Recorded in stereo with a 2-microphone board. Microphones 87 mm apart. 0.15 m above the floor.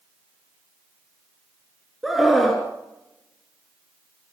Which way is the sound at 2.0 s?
Centre (ahead or behind).